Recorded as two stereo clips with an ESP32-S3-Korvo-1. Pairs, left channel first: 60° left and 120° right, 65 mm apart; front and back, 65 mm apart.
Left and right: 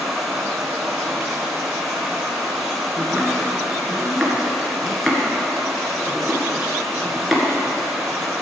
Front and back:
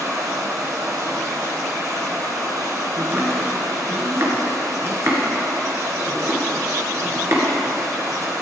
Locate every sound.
0.0 s running water: 150° left, 2 m
3.0 s chopping: 150° left, 2 m